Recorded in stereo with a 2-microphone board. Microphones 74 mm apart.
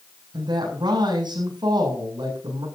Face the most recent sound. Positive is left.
turn(degrees=-80)